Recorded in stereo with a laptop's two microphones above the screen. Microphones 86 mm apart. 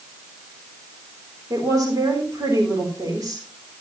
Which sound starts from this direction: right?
A woman speaking, at 1.5 s.